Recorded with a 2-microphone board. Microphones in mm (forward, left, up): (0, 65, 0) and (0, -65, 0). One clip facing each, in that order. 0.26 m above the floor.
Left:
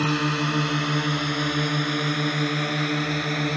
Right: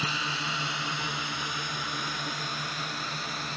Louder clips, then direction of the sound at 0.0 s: Left 11 dB; 60° left (ahead or behind).